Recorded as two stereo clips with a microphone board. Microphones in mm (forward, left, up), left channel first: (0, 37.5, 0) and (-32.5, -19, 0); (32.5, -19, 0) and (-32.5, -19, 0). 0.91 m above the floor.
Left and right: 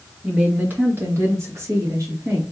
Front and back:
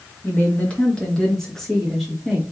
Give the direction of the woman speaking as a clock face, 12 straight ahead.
2 o'clock.